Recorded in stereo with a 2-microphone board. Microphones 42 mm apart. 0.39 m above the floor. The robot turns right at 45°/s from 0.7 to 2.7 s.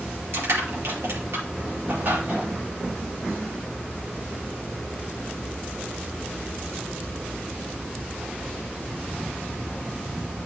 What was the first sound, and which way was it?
Crushing, 75° right (ahead or behind).